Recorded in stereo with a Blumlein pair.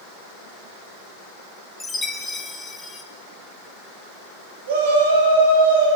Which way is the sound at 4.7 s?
55° right.